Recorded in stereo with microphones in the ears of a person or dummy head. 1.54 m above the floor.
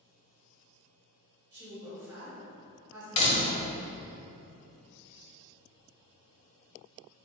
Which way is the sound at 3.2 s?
35° left (ahead or behind).